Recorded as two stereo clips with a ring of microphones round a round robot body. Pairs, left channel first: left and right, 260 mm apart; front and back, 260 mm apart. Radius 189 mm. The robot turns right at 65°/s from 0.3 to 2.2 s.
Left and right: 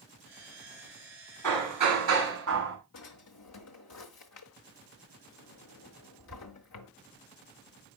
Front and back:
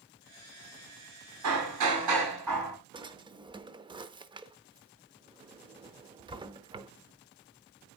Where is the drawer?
110° left, 0.7 m.